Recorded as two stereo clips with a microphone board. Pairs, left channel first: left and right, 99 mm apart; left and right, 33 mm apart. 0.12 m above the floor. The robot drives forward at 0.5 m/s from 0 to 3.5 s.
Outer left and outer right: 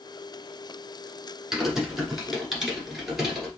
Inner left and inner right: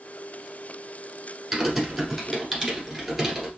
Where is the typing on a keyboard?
5° right (ahead or behind), 1.1 m.